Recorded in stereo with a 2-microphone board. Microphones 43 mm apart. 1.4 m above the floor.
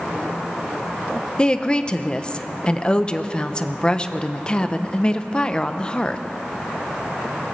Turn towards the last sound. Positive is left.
turn(degrees=20)  # may be behind; listen again after turning